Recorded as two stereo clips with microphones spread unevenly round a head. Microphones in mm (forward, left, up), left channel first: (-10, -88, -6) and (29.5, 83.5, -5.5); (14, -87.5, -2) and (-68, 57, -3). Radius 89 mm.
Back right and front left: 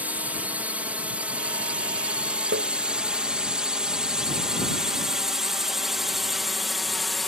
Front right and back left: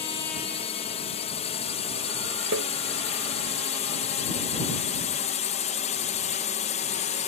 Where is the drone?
5° right; by 7.3 s 15° right.